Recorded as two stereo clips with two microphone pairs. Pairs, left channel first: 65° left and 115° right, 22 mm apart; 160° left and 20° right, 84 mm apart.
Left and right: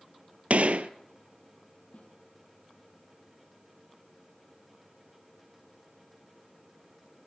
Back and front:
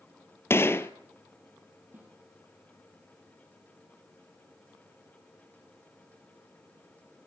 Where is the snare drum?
50° left, 4.5 m.